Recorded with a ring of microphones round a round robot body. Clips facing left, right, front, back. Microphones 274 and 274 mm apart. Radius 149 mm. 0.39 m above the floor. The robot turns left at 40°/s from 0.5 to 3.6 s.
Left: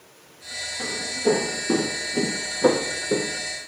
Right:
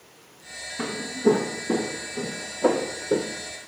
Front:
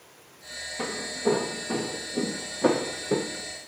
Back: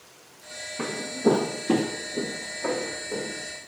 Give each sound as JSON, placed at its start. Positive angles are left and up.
{"t": 0.8, "sound": "footsteps", "azimuth_deg": -120, "distance_m": 1.4}